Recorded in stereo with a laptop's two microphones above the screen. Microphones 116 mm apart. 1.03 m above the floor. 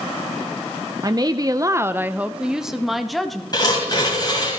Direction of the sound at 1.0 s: 35° right (ahead or behind).